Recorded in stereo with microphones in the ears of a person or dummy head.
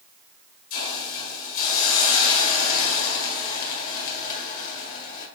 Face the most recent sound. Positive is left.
turn(degrees=50)  # may be behind; listen again after turning